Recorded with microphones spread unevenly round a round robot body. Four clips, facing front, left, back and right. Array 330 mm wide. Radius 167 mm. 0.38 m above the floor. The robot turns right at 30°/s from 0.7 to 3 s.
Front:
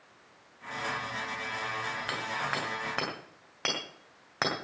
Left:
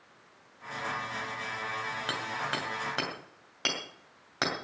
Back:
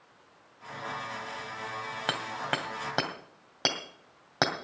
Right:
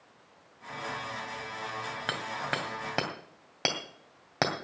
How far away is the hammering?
About 2.5 m.